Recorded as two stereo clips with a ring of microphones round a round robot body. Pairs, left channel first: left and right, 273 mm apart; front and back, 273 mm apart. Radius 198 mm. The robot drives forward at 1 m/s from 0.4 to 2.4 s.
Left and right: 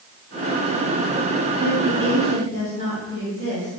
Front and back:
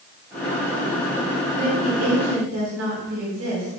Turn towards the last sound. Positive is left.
turn(degrees=160)